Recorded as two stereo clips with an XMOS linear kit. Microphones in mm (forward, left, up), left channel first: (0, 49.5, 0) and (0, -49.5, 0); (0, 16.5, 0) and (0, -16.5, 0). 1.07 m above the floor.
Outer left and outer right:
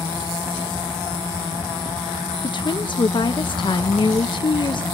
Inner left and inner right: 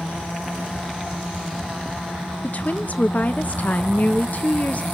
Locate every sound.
2.4 s a woman speaking: 50° left (ahead or behind), 0.7 m